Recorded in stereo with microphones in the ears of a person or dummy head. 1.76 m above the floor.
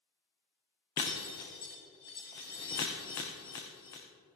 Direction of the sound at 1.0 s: 20° left (ahead or behind).